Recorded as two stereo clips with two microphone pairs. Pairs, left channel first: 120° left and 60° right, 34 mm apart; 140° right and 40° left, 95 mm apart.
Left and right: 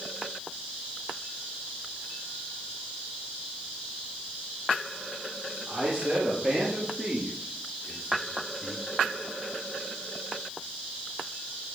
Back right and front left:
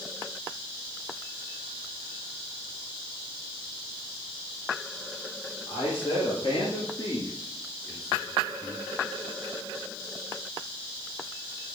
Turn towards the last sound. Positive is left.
turn(degrees=105)